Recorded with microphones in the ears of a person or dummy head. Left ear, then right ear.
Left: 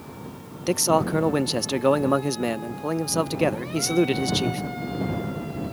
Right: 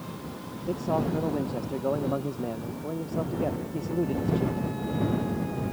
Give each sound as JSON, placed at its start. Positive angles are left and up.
{"t": 0.7, "sound": "a man speaking", "side_deg": 55}